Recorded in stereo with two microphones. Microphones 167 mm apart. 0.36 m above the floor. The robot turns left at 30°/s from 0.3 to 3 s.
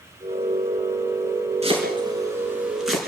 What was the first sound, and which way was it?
Chopping, 40° right (ahead or behind).